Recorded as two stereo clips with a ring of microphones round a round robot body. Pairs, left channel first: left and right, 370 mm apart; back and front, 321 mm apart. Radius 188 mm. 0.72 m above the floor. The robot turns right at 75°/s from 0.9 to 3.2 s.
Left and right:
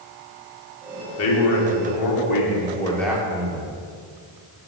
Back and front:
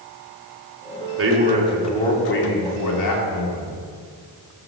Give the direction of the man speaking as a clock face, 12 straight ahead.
11 o'clock.